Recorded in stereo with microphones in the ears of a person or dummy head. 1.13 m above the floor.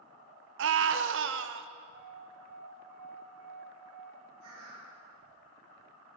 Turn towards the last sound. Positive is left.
turn(degrees=-85)